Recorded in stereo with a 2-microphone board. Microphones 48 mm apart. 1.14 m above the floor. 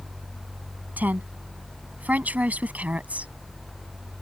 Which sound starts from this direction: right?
A woman speaking, at 1.0 s.